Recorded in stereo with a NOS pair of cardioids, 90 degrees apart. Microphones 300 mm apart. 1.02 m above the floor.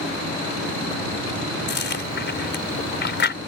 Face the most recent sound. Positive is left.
turn(degrees=35)